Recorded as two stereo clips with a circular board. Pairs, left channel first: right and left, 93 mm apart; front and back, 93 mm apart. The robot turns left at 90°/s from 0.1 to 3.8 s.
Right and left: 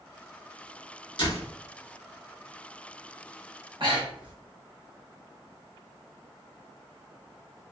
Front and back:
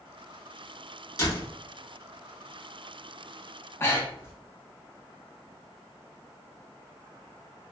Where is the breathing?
65° left, 0.8 m.